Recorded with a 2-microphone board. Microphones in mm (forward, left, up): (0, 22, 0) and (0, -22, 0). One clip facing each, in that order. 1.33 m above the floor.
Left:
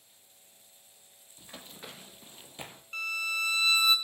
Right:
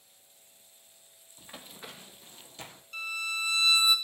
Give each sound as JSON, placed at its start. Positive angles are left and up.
{"t": 1.4, "sound": "running footsteps", "side_deg": -15, "distance_m": 1.7}
{"t": 2.9, "sound": "a violin", "side_deg": 30, "distance_m": 1.5}